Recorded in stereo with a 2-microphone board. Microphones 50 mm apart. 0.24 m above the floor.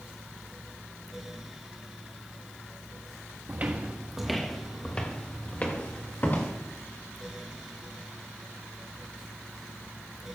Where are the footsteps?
40° right (ahead or behind), 1.0 m; by 6.5 s 45° left (ahead or behind), 3 m.